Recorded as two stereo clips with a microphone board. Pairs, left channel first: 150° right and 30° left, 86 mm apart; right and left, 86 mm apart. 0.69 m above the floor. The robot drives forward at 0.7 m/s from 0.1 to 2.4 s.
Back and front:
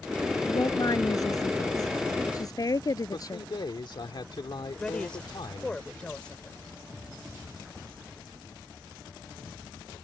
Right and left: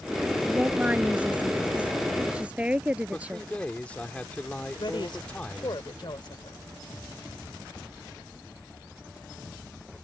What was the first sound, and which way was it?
A woman speaking, 165° left.